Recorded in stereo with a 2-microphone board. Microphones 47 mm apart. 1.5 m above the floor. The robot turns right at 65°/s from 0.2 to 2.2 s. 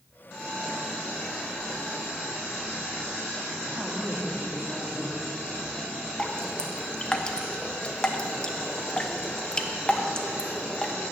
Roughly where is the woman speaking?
Right.